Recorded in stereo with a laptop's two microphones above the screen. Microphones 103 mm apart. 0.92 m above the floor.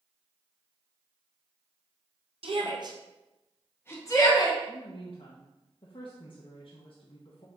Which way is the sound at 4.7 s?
60° left (ahead or behind).